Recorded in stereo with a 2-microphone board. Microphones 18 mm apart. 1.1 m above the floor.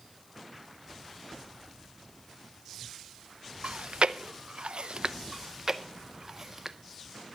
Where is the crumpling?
I don't hear crumpling.